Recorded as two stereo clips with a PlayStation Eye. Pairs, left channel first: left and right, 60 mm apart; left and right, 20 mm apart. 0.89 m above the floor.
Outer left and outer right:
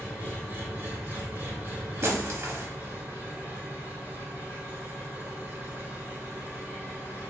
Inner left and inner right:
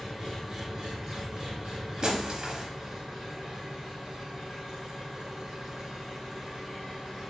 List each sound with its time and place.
0.0 s an engine running: 40° right (ahead or behind), 2.0 m
2.0 s breaking glass: 50° right (ahead or behind), 0.8 m